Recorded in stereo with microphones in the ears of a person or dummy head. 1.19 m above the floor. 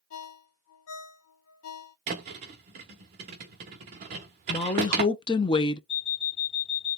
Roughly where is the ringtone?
Left.